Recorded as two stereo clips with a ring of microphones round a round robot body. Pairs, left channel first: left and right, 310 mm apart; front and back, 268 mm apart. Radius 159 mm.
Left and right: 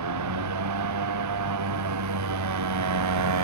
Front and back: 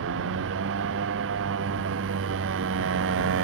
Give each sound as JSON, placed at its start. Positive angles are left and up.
{"t": 0.0, "sound": "a motorcycle", "azimuth_deg": -125}